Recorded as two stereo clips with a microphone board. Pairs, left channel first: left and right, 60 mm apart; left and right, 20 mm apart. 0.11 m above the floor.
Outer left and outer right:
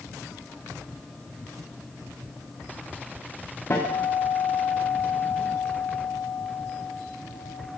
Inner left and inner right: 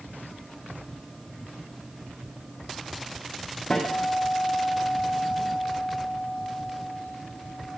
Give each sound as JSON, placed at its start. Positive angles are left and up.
{"t": 3.7, "sound": "a guitar", "side_deg": 45, "distance_m": 7.5}